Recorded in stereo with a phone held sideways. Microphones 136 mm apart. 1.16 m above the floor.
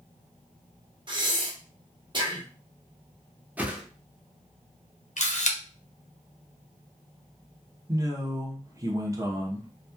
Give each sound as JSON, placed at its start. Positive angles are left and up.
{"t": 1.1, "sound": "breathing", "side_deg": -35, "distance_m": 0.8}
{"t": 3.6, "sound": "a whoosh", "side_deg": -10, "distance_m": 0.6}
{"t": 5.2, "sound": "a camera shutter", "side_deg": 60, "distance_m": 0.7}
{"t": 7.9, "sound": "a man speaking", "side_deg": -25, "distance_m": 0.8}